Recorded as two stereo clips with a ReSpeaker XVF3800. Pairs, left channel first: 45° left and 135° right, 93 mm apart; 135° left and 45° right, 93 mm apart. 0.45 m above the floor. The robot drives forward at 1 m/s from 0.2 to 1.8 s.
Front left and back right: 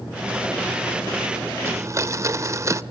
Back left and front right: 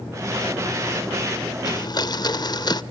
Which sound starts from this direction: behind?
A blender, at 1.6 s.